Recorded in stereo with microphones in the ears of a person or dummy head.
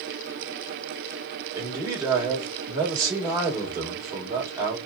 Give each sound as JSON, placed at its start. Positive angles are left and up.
{"t": 1.6, "sound": "a man speaking", "side_deg": -15, "distance_m": 1.3}